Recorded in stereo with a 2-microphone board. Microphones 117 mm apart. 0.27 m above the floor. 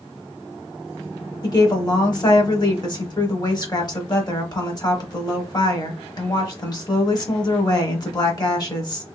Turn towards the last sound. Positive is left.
turn(degrees=35)  # may be behind; listen again after turning